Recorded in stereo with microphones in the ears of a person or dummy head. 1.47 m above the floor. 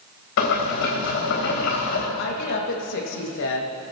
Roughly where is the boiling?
Left.